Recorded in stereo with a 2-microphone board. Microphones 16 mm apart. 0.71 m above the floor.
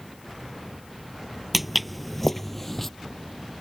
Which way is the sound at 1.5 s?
5° right (ahead or behind).